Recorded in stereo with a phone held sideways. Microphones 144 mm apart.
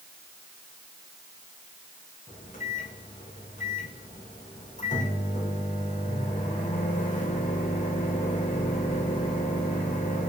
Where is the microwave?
60° left (ahead or behind), 1.0 m.